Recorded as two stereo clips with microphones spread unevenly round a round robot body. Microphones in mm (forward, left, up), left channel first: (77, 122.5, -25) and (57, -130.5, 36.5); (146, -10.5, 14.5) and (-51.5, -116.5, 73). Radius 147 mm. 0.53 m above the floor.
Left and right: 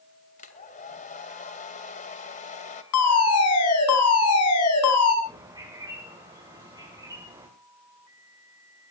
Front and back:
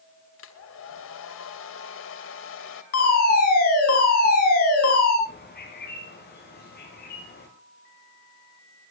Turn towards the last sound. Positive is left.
turn(degrees=-20)